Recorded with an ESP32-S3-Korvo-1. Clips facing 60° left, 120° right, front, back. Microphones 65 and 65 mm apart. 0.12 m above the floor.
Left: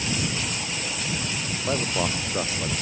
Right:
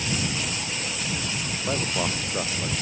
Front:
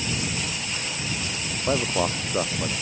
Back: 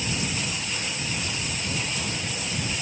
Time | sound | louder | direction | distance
1.7 | a man speaking | left 1 dB, front 11 dB | 25° right | ?